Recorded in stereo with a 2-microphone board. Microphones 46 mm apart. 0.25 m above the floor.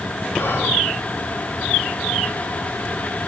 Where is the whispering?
55° left (ahead or behind), 2.5 m.